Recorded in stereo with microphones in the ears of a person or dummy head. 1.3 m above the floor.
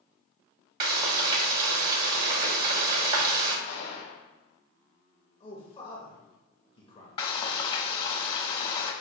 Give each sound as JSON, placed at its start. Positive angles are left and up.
{"t": 0.8, "sound": "frying", "side_deg": -55, "distance_m": 1.2}
{"t": 3.7, "sound": "a gunshot", "side_deg": 55, "distance_m": 1.4}
{"t": 5.4, "sound": "a man speaking", "side_deg": 25, "distance_m": 0.9}
{"t": 7.2, "sound": "frying", "side_deg": 35, "distance_m": 1.0}